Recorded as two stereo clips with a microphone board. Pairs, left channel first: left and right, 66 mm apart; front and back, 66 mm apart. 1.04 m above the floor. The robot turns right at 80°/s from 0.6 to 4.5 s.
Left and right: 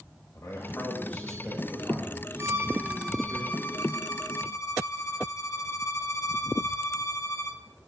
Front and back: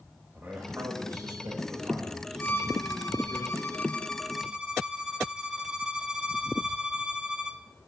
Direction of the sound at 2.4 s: 60° right.